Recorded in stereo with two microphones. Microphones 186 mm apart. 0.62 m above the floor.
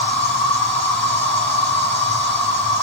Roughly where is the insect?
Centre.